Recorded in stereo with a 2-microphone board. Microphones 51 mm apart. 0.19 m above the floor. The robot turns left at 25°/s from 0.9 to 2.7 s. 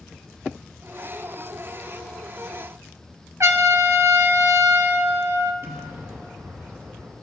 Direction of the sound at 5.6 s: 55° right (ahead or behind).